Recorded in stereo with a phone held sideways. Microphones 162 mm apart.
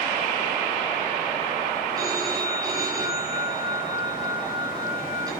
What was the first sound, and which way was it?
A phone ringing, 25° right (ahead or behind).